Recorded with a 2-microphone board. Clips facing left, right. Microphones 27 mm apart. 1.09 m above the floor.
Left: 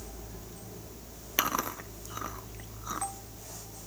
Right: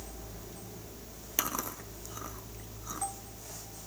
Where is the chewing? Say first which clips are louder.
Left 5 dB; 30° left (ahead or behind), 0.8 m.